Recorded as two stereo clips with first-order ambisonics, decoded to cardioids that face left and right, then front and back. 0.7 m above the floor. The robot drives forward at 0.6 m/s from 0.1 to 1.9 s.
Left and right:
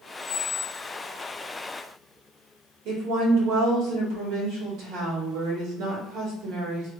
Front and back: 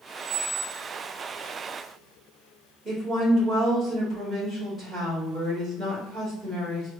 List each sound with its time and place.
0.2 s a squeak: 155° left, 1.1 m; by 0.8 s 160° left, 1.3 m
2.9 s a woman speaking: 110° right, 1.9 m